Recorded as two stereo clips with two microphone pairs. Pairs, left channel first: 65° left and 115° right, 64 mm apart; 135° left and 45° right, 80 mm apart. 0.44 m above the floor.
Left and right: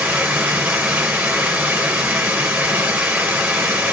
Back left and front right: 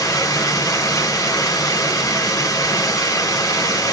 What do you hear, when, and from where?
0.0 s running water: straight behind, 1.3 m